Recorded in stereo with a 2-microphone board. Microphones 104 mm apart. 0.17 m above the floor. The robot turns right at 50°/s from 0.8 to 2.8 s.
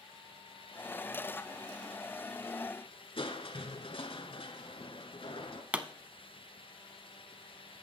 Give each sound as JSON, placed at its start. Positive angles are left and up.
{"t": 3.2, "sound": "crushing", "side_deg": 60, "distance_m": 1.3}
{"t": 5.7, "sound": "a pop", "side_deg": -15, "distance_m": 0.7}